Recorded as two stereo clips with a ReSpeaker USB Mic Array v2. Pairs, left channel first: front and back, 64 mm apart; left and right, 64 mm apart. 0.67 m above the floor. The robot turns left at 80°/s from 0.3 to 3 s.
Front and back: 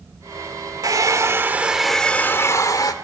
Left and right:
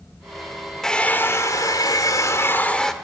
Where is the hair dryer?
175° left, 1.5 m; by 2.9 s 5° left, 1.5 m.